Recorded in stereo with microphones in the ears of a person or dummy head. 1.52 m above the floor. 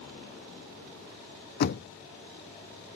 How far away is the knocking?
About 0.6 m.